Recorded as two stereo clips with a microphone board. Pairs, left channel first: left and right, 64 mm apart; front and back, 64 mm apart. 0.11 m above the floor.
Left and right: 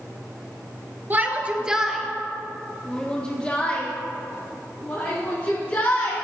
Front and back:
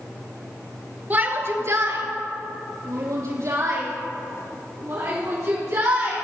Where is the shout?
135° right, 1.7 m; by 6.2 s 150° left, 7 m.